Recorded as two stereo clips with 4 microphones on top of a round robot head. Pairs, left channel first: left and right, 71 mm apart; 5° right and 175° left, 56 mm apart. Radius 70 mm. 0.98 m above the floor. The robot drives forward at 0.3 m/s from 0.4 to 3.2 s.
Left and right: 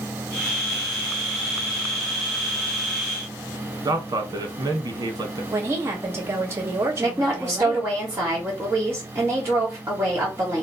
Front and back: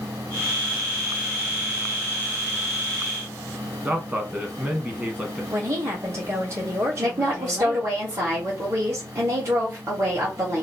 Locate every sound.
3.9 s a man speaking: 115° right, 1.2 m
5.5 s a woman speaking: 145° right, 1.4 m
7.0 s a woman speaking: 150° right, 1.6 m